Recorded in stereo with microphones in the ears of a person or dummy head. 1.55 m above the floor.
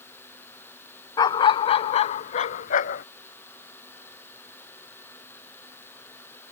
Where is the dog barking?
30° left (ahead or behind); by 3.0 s 55° left (ahead or behind).